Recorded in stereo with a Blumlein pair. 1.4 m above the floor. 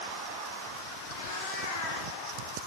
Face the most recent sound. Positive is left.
turn(degrees=55)